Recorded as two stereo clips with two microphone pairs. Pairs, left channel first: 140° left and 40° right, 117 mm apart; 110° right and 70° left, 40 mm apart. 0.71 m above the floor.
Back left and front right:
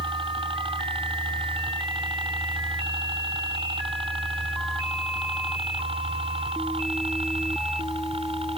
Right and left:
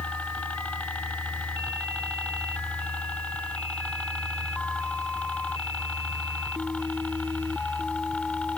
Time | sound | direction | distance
0.0 | a helicopter | 65° right | ?